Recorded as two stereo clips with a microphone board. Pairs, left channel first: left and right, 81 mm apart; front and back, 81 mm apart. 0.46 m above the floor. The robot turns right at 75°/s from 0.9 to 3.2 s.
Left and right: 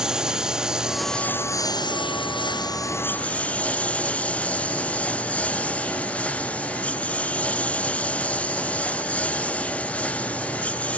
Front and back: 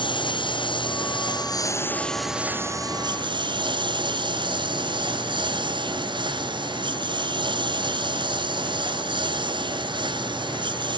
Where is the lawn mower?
10° right; by 11.0 s 165° left.